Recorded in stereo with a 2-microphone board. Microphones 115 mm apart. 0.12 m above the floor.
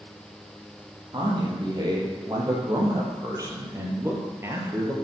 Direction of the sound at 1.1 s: 40° right (ahead or behind).